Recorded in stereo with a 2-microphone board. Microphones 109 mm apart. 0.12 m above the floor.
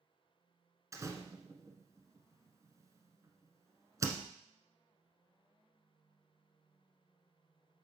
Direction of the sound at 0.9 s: 30° right (ahead or behind).